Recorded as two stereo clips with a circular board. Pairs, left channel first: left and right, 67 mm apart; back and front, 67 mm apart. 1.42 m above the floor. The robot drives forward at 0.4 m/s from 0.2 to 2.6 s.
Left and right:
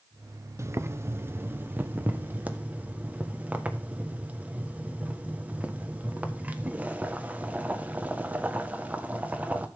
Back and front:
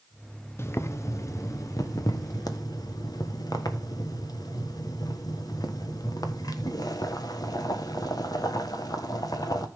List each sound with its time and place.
0.6 s boiling: 130° right, 0.7 m; by 9.7 s 160° right, 1.4 m